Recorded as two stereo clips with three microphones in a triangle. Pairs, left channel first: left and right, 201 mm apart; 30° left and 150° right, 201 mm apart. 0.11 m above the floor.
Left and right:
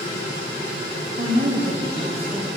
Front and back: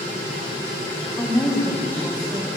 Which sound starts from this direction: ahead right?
A woman speaking, at 1.2 s.